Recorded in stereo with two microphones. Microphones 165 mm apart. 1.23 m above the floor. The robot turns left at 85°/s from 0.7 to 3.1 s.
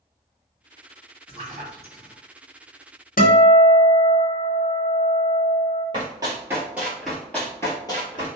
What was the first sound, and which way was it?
A splash, 30° right (ahead or behind).